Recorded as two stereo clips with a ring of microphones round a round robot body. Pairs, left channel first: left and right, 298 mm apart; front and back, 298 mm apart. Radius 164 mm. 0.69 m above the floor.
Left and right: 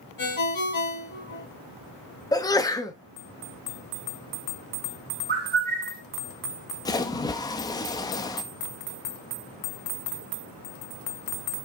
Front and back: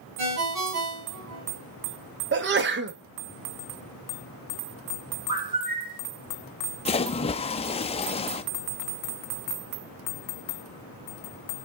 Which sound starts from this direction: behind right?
A bird, at 5.3 s.